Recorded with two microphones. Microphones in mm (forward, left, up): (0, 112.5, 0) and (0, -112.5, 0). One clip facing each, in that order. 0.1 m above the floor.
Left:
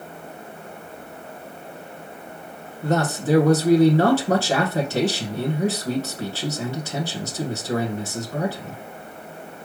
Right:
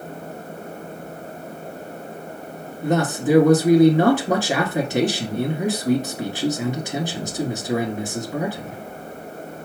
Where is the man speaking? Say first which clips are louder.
Right 2 dB; 15° right (ahead or behind), 1.1 m.